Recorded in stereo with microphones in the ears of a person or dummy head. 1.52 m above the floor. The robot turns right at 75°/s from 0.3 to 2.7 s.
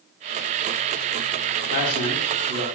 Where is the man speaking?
130° left, 1.9 m; by 2.7 s 160° right, 1.9 m.